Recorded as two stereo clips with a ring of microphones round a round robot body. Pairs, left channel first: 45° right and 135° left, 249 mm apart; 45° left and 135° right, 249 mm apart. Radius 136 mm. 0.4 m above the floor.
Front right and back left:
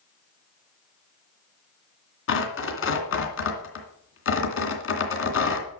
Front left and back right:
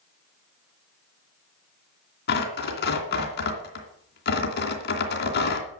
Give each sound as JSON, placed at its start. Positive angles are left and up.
{"t": 2.3, "sound": "tearing paper", "azimuth_deg": -5, "distance_m": 2.5}